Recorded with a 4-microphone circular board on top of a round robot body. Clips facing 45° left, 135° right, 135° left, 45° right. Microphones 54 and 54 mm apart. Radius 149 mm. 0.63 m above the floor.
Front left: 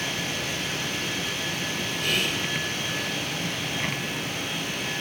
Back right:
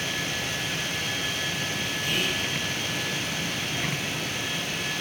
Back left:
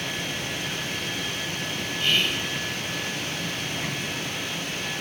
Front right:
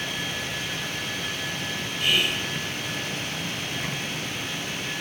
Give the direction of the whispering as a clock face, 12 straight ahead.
11 o'clock.